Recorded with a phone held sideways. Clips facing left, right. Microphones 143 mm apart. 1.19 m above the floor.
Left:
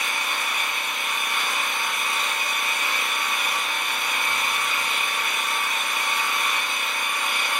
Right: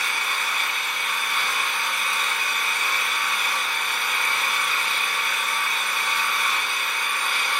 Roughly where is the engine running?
Centre.